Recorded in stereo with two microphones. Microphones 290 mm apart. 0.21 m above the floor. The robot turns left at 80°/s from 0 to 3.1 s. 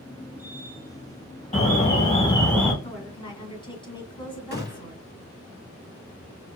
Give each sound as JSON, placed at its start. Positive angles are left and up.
{"t": 1.5, "sound": "an alarm", "side_deg": 25, "distance_m": 1.7}
{"t": 2.8, "sound": "a woman speaking", "side_deg": 30, "distance_m": 2.0}
{"t": 4.5, "sound": "a gunshot", "side_deg": 35, "distance_m": 1.4}